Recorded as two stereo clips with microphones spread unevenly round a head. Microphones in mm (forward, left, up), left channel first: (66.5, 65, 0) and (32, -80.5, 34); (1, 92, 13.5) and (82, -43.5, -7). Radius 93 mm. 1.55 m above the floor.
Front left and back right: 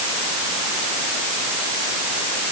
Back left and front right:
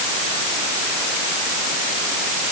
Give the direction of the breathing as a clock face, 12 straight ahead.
I don't hear breathing.